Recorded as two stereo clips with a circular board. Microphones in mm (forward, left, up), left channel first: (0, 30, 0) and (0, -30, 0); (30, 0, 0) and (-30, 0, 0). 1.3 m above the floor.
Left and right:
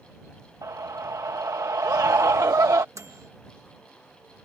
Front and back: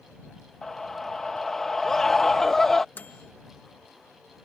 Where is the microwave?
60° right.